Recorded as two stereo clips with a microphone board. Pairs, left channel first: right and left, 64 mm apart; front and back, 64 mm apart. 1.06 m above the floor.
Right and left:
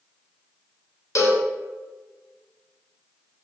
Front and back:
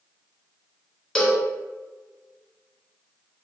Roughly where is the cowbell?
Right.